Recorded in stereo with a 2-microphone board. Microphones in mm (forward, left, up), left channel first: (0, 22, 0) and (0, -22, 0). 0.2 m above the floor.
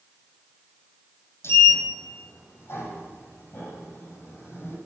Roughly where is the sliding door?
Left.